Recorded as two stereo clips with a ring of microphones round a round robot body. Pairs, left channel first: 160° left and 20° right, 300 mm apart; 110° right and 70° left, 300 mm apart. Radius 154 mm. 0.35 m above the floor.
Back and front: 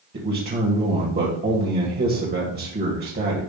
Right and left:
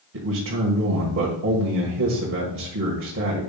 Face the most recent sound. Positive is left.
turn(degrees=30)